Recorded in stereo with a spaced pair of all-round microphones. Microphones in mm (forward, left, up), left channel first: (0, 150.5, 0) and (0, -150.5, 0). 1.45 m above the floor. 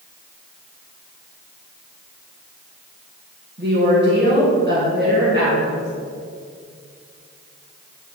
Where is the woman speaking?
35° right (ahead or behind), 1.6 m.